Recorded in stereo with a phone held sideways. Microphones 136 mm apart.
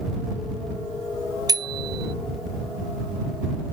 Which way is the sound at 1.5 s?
30° right (ahead or behind).